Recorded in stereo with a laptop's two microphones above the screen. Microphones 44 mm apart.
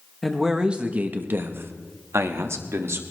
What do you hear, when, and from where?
0.2 s a man speaking: centre (ahead or behind), 1.0 m; by 3.0 s 80° right, 2 m